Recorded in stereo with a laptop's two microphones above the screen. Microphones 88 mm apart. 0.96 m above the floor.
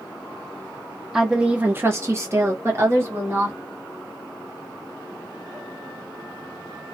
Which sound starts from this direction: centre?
A woman speaking, at 1.1 s.